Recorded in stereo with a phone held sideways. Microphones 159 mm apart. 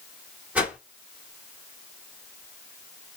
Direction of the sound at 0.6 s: 10° right (ahead or behind).